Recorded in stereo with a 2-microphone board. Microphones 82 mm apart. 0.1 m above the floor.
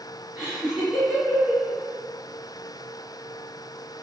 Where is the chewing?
I don't hear chewing.